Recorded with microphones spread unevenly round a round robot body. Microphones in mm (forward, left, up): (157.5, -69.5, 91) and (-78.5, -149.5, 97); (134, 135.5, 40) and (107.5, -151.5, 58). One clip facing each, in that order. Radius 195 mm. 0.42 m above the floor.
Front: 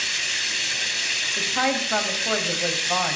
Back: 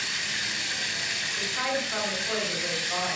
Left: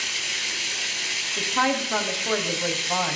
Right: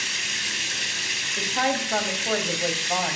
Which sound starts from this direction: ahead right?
Running water, at 0.0 s.